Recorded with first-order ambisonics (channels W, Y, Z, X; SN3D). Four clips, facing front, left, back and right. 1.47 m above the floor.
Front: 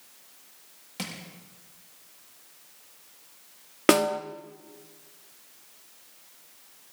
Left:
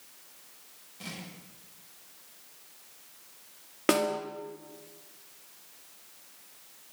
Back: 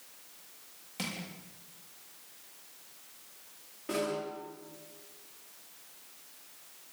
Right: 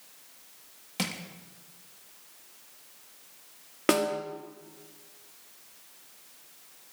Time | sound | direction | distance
1.0 | crushing | 80° right | 3 m
3.9 | a snare drum | 5° right | 1.9 m